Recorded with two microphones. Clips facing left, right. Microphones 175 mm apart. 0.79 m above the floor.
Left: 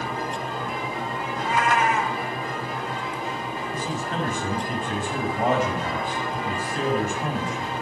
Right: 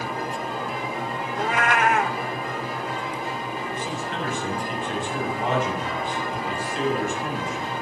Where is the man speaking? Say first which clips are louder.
Left 1 dB; 40° left (ahead or behind), 6.5 m.